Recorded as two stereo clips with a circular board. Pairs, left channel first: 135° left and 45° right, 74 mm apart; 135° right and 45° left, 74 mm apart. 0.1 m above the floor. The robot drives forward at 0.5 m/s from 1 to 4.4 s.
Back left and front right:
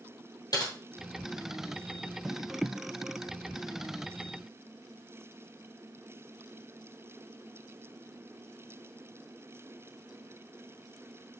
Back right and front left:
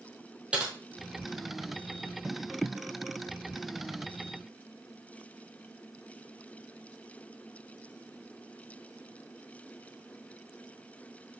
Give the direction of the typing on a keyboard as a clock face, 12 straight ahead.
8 o'clock.